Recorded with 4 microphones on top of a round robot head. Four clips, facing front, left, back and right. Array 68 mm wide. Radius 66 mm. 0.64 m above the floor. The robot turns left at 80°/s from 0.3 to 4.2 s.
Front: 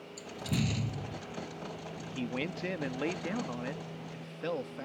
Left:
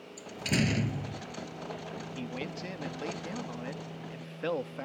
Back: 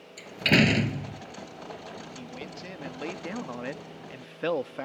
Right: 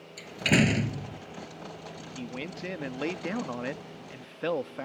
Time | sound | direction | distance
0.2 | a door slam | 135° right | ?
2.0 | a man speaking | 15° left | ?